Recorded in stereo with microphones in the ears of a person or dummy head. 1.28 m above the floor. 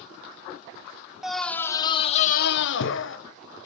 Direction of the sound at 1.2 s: 5° right (ahead or behind).